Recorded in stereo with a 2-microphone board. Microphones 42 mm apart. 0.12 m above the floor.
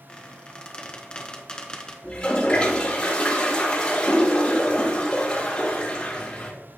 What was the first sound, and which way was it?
A squeak, 20° left (ahead or behind).